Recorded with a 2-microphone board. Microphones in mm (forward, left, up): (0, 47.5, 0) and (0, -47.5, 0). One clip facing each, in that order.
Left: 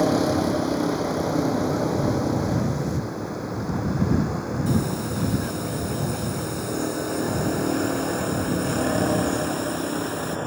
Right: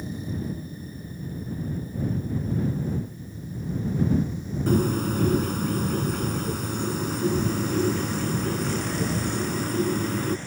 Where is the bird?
55° right (ahead or behind).